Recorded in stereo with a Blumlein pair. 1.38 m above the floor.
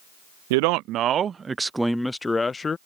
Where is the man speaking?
50° right; by 2.8 s 15° left.